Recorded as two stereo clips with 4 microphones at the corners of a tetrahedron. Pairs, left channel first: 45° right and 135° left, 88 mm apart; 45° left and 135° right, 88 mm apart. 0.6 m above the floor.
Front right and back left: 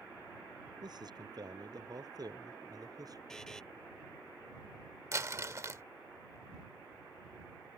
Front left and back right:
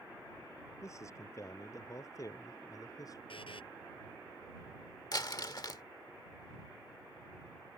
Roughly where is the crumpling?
Left.